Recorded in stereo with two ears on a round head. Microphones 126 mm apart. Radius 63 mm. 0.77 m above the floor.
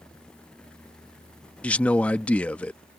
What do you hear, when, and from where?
1.6 s a man speaking: 10° left (ahead or behind)